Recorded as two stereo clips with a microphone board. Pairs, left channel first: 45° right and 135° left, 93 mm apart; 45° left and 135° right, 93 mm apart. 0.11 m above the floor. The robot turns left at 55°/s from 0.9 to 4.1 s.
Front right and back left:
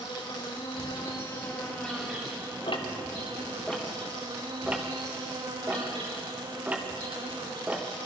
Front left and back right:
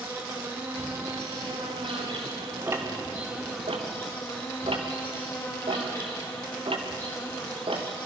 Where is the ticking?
70° right, 3 m; by 7.9 s 150° right, 3 m.